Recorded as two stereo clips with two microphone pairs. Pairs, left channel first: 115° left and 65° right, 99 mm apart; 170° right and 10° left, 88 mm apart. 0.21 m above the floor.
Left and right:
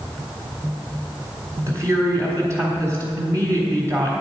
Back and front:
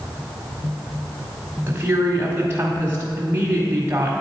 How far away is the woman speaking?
About 1.2 m.